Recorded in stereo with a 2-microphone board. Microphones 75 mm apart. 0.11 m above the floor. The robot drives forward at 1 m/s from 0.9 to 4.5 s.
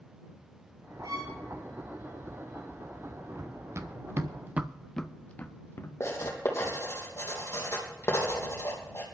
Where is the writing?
40° left (ahead or behind), 3 m.